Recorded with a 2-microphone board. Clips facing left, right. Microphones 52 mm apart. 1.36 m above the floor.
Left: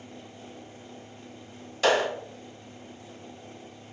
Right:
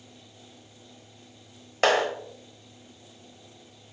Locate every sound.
1.8 s a clap: 50° right (ahead or behind), 1.0 m